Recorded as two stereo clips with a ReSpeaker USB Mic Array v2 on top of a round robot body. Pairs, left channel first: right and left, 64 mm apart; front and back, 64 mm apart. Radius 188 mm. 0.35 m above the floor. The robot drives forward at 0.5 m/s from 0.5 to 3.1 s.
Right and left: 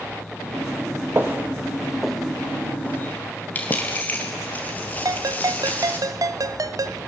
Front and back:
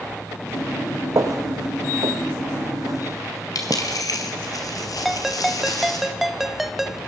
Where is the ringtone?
95° left, 0.9 m.